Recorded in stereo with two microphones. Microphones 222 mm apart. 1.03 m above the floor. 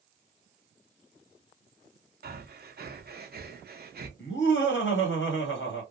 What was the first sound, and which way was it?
Breathing, 45° right (ahead or behind).